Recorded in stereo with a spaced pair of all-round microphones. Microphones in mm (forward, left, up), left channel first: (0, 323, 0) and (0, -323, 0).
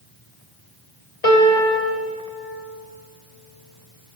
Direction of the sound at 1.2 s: 65° left (ahead or behind).